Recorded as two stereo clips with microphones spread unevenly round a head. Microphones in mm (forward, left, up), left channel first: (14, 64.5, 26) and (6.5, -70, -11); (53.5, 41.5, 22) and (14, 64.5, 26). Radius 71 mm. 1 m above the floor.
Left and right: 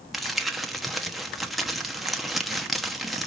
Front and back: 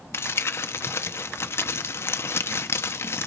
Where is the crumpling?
5° right, 1.0 m.